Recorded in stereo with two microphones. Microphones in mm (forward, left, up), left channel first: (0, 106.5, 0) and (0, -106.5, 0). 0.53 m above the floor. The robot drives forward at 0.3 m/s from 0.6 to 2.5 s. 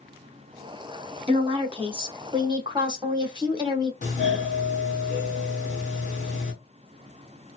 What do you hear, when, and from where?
1.3 s a woman speaking: 25° right (ahead or behind), 0.8 m; by 3.9 s 20° right (ahead or behind), 1.0 m
4.0 s a doorbell: 35° left (ahead or behind), 1.5 m